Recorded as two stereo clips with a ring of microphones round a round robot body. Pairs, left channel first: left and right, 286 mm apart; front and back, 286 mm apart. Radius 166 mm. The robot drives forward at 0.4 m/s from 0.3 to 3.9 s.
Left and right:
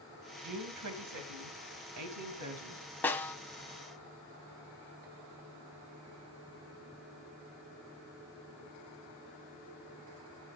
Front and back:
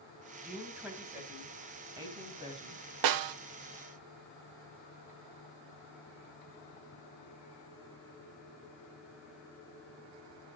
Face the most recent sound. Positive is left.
turn(degrees=175)